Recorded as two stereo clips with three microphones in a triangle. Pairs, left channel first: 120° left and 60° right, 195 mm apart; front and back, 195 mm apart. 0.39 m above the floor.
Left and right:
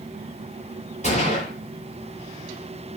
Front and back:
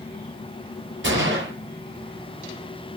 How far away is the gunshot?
About 10 m.